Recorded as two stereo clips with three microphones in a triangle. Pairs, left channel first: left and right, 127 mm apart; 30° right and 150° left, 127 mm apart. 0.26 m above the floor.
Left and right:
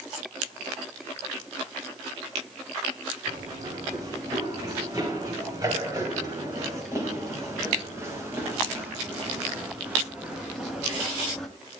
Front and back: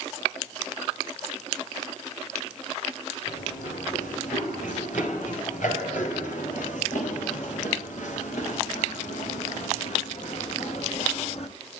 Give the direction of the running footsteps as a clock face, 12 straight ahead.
1 o'clock.